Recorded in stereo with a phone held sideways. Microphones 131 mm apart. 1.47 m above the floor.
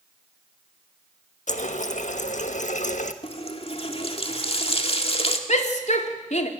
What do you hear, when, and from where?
1.5 s a running tap: 70° left (ahead or behind), 1.4 m
3.2 s a running tap: 50° left (ahead or behind), 1.9 m
5.5 s a shout: 65° left (ahead or behind), 3 m